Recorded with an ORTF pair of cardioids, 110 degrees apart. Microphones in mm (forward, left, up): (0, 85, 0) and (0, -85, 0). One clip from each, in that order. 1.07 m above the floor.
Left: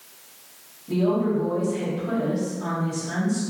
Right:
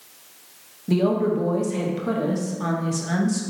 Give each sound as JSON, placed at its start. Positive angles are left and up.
{"t": 0.9, "sound": "a woman speaking", "azimuth_deg": -60, "distance_m": 1.0}